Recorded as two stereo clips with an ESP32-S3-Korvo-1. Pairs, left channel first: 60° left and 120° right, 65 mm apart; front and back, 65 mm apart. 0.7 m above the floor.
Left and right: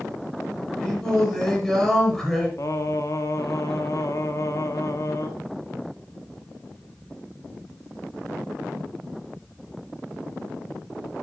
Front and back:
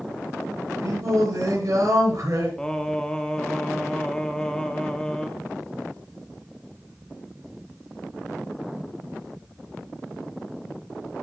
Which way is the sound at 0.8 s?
145° left.